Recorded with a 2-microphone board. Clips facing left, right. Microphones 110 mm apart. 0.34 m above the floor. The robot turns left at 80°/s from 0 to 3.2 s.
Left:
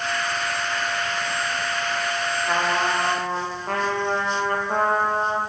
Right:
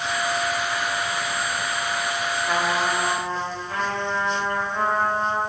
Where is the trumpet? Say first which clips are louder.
Left 1 dB; 175° left, 10 m; by 5.4 s 115° left, 10 m.